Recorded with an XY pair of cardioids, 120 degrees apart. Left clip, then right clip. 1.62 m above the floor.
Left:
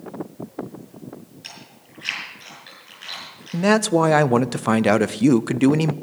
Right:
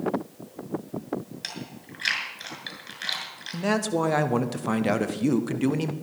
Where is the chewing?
55° right, 6.5 m.